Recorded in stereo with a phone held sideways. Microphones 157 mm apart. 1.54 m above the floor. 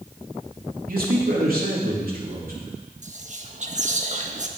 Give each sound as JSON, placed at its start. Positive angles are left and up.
{"t": 0.9, "sound": "a man speaking", "side_deg": -70, "distance_m": 3.5}
{"t": 3.0, "sound": "whispering", "side_deg": -50, "distance_m": 1.5}